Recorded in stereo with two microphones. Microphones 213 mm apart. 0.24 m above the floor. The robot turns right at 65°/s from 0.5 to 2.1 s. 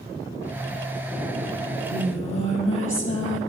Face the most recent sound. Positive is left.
turn(degrees=70)